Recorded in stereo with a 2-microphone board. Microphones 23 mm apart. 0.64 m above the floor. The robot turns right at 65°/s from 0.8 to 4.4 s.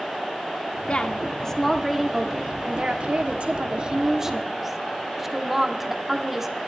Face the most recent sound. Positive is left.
turn(degrees=-10)